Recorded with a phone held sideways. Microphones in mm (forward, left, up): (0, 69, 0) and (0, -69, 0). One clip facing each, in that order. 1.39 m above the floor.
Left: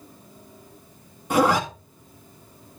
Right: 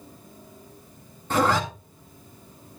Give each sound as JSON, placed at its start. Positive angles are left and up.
{"t": 1.3, "sound": "a zipper", "side_deg": 10, "distance_m": 1.6}